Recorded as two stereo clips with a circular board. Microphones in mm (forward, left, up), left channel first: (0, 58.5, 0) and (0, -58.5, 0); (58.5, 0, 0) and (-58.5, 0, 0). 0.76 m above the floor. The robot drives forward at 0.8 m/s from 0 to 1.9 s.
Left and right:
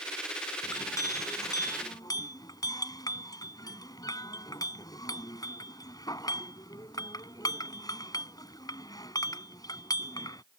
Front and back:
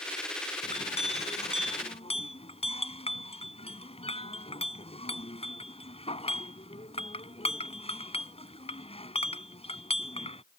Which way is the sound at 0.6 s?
25° left.